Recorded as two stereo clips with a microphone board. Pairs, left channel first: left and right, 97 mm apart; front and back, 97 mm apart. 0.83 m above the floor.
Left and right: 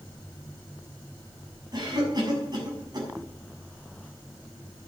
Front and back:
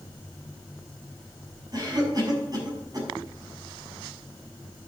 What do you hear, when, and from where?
1.7 s a cough: 130° right, 6.5 m